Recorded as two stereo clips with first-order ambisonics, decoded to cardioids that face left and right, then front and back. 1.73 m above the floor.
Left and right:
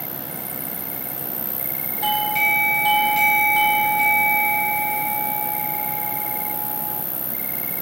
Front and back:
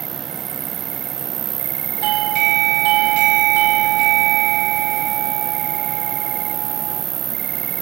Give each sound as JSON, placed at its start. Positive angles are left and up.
{"t": 0.0, "sound": "an insect", "azimuth_deg": 180}
{"t": 2.0, "sound": "a doorbell", "azimuth_deg": 180}